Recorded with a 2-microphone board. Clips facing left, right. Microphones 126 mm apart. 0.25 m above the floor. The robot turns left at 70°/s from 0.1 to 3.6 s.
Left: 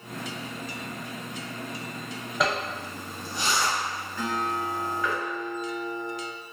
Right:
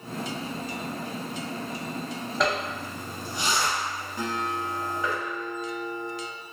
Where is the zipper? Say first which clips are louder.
Even; 5° left (ahead or behind), 1.2 m; by 5.1 s 20° right (ahead or behind), 1.2 m.